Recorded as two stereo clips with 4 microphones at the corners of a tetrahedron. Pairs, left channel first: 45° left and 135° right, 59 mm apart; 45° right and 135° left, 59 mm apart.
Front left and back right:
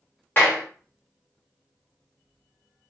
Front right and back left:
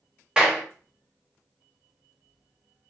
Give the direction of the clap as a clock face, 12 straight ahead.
10 o'clock.